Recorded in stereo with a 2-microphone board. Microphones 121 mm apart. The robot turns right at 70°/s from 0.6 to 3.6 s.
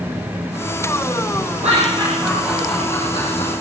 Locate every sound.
1.6 s laughter: 65° right (ahead or behind), 7 m; by 3.5 s 60° left (ahead or behind), 7 m